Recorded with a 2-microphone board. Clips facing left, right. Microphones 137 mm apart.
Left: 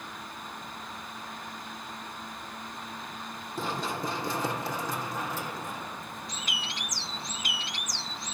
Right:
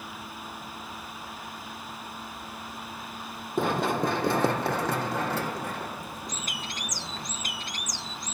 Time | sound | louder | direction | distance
3.6 | running footsteps | right 7 dB | 60° right (ahead or behind) | 1.7 m
6.3 | a bird | right 1 dB | 45° right (ahead or behind) | 0.6 m